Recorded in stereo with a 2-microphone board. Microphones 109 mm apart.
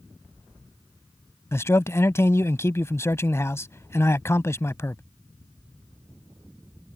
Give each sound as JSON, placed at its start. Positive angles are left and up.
{"t": 1.5, "sound": "a man speaking", "side_deg": 25}